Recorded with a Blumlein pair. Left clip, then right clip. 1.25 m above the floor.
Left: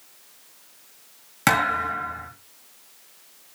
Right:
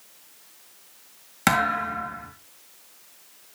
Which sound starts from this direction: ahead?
A thud, at 1.5 s.